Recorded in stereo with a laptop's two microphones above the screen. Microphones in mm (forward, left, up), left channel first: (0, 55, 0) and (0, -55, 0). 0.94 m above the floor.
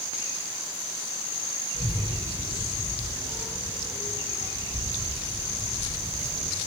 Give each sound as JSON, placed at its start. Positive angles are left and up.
{"t": 1.7, "sound": "a child speaking", "side_deg": -65, "distance_m": 5.5}